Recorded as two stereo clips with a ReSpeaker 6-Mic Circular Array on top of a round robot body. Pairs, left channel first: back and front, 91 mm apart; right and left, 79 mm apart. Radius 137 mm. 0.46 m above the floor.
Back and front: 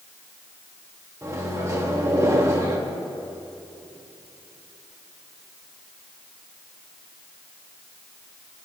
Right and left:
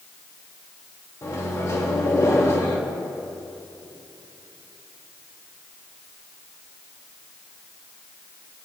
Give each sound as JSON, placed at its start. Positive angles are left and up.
{"t": 1.2, "sound": "a microwave", "azimuth_deg": -50, "distance_m": 1.9}